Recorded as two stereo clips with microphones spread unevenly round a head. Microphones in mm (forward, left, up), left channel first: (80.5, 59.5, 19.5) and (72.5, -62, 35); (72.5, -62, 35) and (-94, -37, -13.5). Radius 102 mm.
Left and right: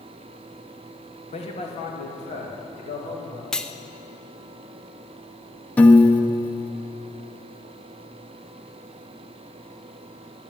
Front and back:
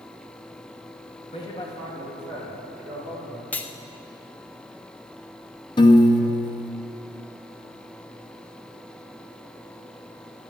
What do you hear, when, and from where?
1.3 s a man speaking: 60° left, 2 m; by 3.4 s 80° left, 4 m
3.5 s cutlery clinking: 5° right, 0.5 m
5.8 s a piano: 5° left, 0.9 m